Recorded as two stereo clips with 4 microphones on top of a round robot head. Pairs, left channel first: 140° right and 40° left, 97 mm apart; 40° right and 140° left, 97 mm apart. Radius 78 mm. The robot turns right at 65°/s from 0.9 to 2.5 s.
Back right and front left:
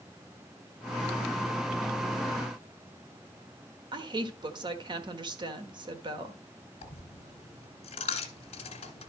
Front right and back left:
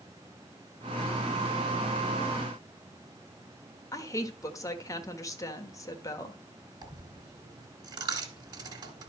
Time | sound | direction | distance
3.9 | a woman speaking | 10° left | 1.4 m
6.8 | a dropped coin | 165° right | 1.3 m